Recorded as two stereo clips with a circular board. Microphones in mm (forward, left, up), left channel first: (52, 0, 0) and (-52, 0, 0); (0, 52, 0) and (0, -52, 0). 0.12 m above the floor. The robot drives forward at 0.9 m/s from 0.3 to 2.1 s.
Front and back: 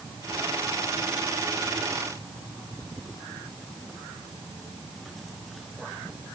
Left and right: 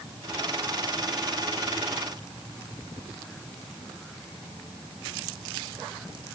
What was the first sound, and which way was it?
Only background noise.